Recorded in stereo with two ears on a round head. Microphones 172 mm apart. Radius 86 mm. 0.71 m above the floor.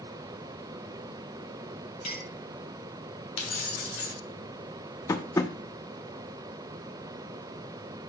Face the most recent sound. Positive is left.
turn(degrees=15)  # may be behind; listen again after turning